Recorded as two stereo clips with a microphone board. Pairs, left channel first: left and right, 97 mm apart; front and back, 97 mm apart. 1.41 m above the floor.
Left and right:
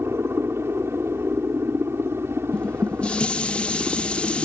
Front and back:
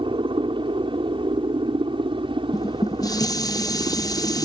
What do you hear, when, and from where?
0.0 s a helicopter: 155° right
2.5 s dishes clattering: 15° left